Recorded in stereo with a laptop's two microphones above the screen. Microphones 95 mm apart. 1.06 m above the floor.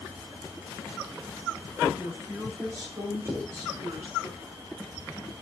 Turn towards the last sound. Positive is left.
turn(degrees=-25)  # may be behind; listen again after turning